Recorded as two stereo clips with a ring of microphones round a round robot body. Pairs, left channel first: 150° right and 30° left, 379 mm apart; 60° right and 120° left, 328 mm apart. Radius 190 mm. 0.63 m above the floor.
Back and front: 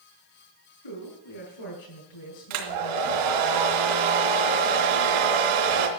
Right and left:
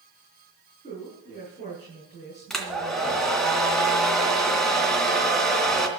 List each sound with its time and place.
0.8 s a woman speaking: 135° right, 6.5 m
2.5 s a hair dryer: 30° left, 2.5 m